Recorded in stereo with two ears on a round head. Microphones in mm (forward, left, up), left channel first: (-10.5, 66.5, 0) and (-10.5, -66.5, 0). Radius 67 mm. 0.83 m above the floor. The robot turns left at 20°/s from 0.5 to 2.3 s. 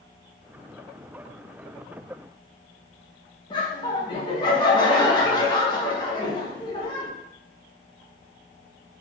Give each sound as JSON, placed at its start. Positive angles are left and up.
{"t": 3.5, "sound": "laughter", "side_deg": 30, "distance_m": 0.9}